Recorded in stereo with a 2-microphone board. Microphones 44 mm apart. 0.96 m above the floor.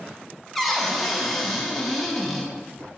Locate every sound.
0.6 s a cupboard door: 5° left (ahead or behind), 0.5 m